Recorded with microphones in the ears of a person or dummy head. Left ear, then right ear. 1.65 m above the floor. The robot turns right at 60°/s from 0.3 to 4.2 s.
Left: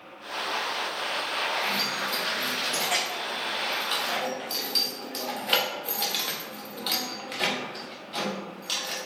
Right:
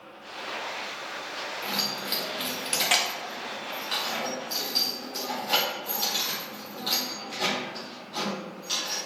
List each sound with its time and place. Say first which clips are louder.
1.6 s keys jangling: left 3 dB; 30° right (ahead or behind), 0.6 m; by 9.0 s 20° left (ahead or behind), 0.6 m